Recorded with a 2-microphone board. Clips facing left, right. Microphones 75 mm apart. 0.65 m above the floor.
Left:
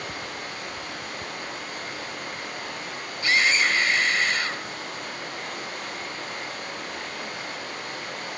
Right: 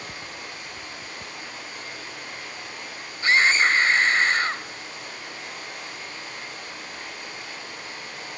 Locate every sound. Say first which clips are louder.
0.0 s running water: left 4 dB; 55° left (ahead or behind), 9 m
3.2 s a scream: right 3 dB; 35° right (ahead or behind), 3 m